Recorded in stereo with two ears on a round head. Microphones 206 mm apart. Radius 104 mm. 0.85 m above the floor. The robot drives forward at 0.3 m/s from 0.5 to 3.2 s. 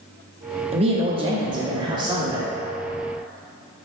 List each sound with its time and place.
0.7 s a woman speaking: 30° right (ahead or behind), 1.0 m; by 2.5 s 20° right (ahead or behind), 1.4 m